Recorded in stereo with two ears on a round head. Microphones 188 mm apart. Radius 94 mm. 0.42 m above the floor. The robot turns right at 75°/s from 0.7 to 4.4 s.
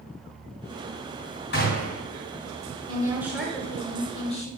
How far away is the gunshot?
About 2.5 m.